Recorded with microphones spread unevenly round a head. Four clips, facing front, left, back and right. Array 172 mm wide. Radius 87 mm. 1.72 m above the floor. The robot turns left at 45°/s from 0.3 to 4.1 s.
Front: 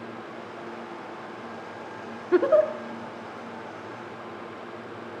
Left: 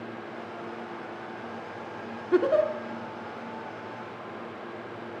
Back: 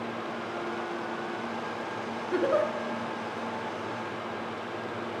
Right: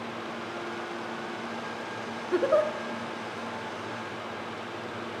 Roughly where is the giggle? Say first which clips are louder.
Left 2 dB, front 7 dB; ahead.